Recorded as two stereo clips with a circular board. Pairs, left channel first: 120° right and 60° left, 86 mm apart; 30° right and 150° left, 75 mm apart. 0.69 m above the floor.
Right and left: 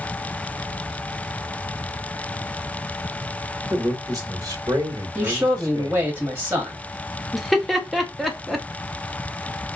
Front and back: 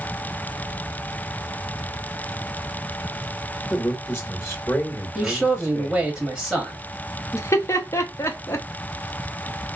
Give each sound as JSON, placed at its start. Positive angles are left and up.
{"t": 3.7, "sound": "a man speaking", "azimuth_deg": 20, "distance_m": 1.2}
{"t": 5.2, "sound": "a man speaking", "azimuth_deg": 80, "distance_m": 1.1}
{"t": 7.3, "sound": "laughter", "azimuth_deg": -30, "distance_m": 0.7}